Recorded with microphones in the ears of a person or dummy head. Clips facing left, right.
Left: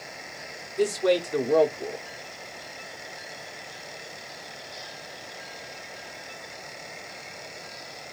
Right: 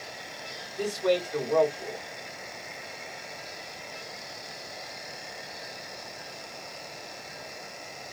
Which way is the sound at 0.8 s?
40° left (ahead or behind).